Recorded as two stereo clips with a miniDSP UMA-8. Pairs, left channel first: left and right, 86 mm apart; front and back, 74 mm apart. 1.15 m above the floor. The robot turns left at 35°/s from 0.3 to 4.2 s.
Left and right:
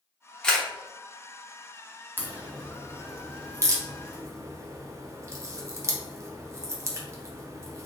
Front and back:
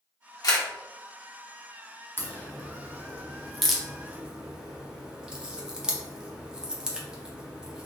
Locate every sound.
0.4 s a camera shutter: 10° left, 0.9 m; by 0.7 s 5° left, 0.9 m
2.2 s a crack: 40° right, 0.6 m; by 7.9 s 110° right, 0.6 m